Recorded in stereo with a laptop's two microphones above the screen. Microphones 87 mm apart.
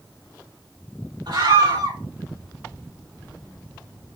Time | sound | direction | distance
1.3 | a scream | 65° right (ahead or behind) | 3 m